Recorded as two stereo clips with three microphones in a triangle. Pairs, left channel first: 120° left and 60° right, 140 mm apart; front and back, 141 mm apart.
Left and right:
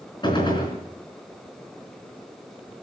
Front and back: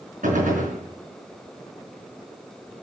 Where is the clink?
No clink in this recording.